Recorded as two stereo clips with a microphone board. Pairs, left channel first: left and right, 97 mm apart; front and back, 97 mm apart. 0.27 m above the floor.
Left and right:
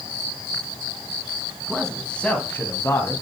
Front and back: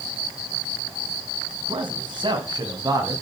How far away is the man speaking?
About 2.5 m.